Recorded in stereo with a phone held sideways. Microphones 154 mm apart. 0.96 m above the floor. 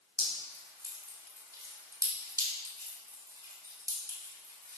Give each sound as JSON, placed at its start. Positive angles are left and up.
{"t": 0.2, "sound": "dripping", "side_deg": -20, "distance_m": 3.0}